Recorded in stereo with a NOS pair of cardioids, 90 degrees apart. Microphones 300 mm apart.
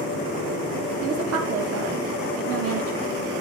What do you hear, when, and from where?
1.0 s a woman speaking: 55° right, 2 m